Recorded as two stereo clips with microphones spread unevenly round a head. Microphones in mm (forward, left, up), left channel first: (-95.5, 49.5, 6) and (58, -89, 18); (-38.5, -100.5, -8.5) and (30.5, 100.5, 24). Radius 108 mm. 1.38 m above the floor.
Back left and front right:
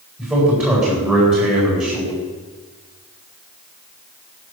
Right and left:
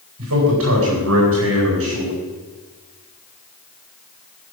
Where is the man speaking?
40° left, 8.5 m.